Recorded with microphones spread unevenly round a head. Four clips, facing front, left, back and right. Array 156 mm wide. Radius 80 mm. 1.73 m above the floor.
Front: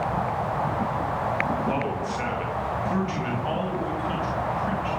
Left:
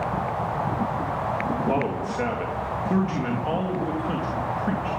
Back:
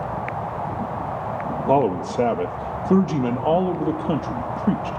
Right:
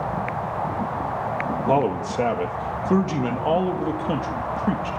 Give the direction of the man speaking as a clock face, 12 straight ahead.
5 o'clock.